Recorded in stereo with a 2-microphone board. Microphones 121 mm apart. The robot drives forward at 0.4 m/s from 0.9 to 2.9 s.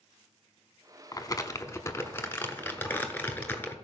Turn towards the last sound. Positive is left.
turn(degrees=15)  # may be behind; listen again after turning